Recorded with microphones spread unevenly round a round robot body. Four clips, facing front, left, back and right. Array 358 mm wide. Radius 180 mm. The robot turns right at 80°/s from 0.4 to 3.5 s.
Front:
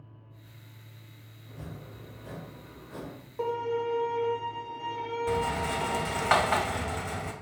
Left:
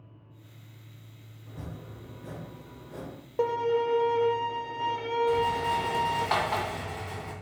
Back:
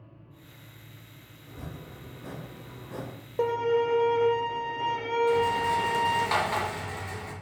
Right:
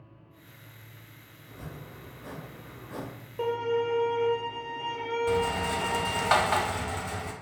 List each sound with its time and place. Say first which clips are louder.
1.5 s chopping: left 1 dB, back 2 dB; 120° left, 3 m; by 3.1 s 105° right, 3 m
3.4 s a violin: left 2 dB, back 5 dB; 140° left, 0.6 m; by 6.3 s 150° left, 0.6 m
5.3 s a rattle: left 1 dB, back 4 dB; 35° right, 1.1 m